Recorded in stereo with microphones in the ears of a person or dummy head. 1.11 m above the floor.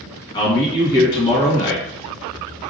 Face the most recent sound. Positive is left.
turn(degrees=20)  # may be behind; listen again after turning